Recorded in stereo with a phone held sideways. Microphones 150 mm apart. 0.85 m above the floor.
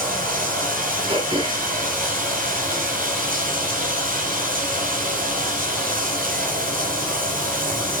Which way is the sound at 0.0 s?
70° right (ahead or behind).